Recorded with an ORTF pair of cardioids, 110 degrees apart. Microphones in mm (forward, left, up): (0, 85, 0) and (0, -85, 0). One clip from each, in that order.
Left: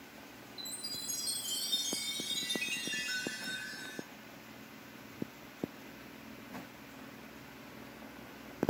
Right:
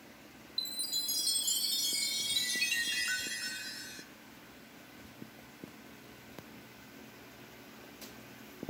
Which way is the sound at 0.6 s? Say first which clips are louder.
Right 7 dB; 65° right.